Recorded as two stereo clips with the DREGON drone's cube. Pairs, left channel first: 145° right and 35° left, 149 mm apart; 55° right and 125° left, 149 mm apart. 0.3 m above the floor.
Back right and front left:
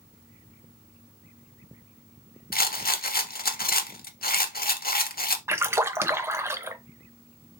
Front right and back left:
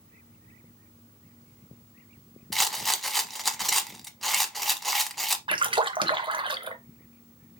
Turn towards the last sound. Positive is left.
turn(degrees=95)